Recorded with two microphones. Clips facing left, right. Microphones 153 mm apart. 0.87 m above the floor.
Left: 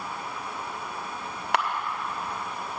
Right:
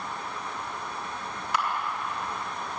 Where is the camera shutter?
65° left (ahead or behind), 1.2 m.